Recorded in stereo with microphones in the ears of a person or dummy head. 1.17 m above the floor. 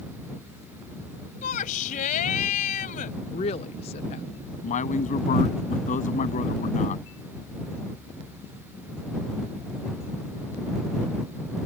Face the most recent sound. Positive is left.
turn(degrees=50)  # may be behind; listen again after turning